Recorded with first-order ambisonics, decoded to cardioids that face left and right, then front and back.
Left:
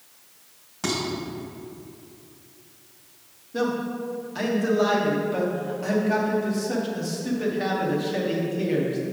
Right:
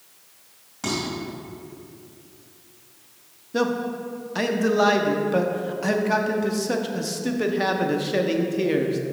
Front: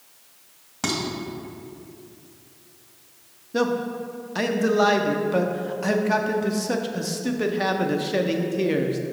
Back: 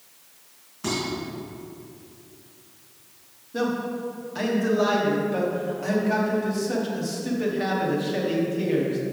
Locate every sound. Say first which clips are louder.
0.8 s dishes clattering: even, front 2 dB; 10° left, 2.5 m
3.5 s a man speaking: right 2 dB, front 3 dB; 45° right, 0.6 m